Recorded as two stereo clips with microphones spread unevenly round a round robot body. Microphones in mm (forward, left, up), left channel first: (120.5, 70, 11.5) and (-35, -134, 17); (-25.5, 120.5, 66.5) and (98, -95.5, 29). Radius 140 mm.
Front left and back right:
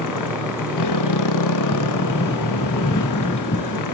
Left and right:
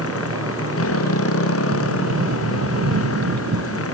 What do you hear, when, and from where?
0.0 s a motorcycle: 85° left
1.7 s a sliding door: 15° right